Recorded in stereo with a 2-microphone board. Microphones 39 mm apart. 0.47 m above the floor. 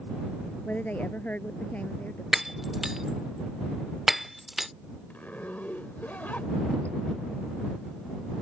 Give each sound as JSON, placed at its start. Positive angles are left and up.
{"t": 0.7, "sound": "a woman speaking", "side_deg": 40}
{"t": 2.3, "sound": "breaking glass", "side_deg": -5}
{"t": 5.1, "sound": "a zipper", "side_deg": 45}